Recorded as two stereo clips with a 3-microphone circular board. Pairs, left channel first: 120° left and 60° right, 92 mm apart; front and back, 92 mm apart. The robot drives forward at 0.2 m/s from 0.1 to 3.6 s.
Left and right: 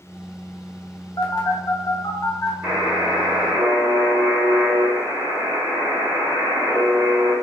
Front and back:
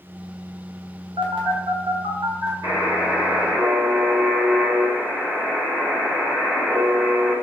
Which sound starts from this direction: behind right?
A buzzer, at 2.6 s.